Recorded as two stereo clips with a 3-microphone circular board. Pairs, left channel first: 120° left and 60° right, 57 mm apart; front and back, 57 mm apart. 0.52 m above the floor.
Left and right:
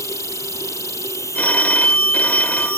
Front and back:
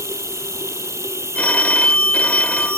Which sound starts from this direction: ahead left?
A phone ringing, at 1.4 s.